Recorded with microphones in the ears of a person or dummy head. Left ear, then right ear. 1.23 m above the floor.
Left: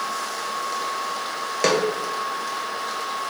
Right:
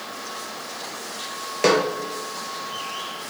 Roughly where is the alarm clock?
No alarm clock in this recording.